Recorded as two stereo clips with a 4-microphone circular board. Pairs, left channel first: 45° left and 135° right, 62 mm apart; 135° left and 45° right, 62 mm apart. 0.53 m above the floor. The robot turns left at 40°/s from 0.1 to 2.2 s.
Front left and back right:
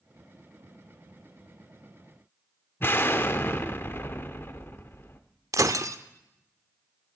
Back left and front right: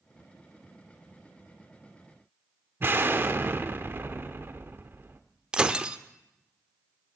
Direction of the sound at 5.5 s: 120° right.